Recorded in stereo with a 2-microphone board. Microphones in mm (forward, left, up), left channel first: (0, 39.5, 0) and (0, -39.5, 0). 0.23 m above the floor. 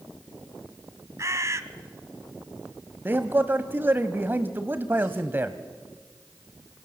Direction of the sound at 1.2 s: 35° right (ahead or behind).